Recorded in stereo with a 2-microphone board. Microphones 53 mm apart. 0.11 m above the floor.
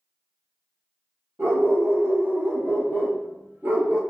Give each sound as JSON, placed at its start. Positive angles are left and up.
{"t": 1.4, "sound": "a dog barking", "side_deg": -35, "distance_m": 1.2}